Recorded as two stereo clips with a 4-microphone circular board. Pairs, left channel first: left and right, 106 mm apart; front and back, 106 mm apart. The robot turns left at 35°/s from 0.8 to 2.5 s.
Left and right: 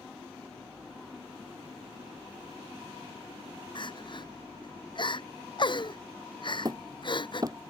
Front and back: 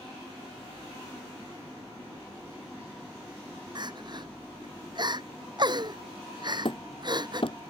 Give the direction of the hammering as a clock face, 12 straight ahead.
1 o'clock.